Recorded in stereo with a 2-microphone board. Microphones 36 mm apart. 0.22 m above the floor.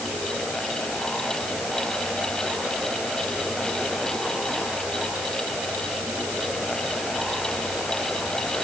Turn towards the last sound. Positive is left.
No sound to turn to.